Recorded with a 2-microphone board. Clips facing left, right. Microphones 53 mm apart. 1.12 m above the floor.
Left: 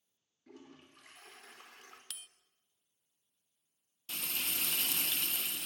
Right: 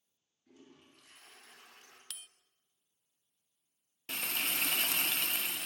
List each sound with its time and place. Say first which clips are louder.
0.5 s a toilet flushing: left 4 dB; 70° left (ahead or behind), 4 m
2.1 s a bell: right 2 dB; 5° left (ahead or behind), 0.8 m
4.1 s frying: right 4 dB; 55° right (ahead or behind), 0.5 m